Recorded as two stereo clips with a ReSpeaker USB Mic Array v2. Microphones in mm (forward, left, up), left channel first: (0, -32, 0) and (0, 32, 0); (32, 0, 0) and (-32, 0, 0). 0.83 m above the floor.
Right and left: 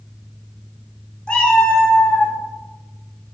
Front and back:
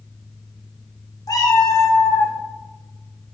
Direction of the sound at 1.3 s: 15° right.